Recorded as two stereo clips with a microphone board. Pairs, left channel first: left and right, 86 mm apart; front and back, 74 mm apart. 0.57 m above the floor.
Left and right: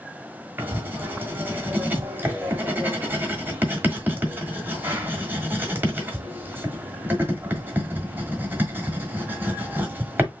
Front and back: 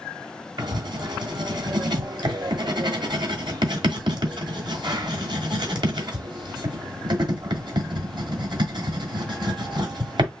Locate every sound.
0.6 s writing: 155° right, 1.3 m